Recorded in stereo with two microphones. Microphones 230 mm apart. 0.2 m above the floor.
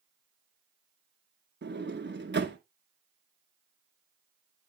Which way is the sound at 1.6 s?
50° right (ahead or behind).